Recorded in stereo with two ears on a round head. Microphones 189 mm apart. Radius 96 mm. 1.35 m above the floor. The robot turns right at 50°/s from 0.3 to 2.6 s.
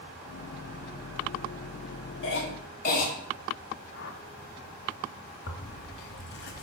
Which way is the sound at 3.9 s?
60° left (ahead or behind).